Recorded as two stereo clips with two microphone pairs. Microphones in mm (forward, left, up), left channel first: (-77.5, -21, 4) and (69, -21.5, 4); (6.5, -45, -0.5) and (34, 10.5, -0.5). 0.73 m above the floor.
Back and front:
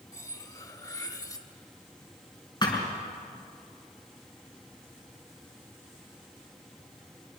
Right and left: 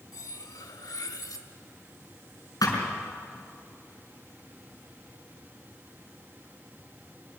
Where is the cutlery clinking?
115° right, 1.1 m.